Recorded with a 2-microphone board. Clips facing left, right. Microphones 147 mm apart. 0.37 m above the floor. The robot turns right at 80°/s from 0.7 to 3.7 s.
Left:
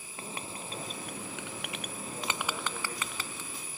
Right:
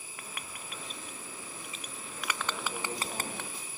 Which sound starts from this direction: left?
Writing, at 0.2 s.